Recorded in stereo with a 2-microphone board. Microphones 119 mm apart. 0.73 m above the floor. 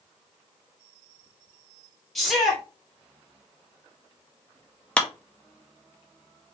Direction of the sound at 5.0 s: 10° left (ahead or behind).